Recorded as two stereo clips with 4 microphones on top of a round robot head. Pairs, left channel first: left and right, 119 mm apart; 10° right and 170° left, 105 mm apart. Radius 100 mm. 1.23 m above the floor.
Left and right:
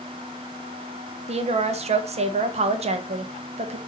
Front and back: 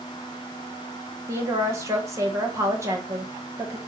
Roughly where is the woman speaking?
Behind right.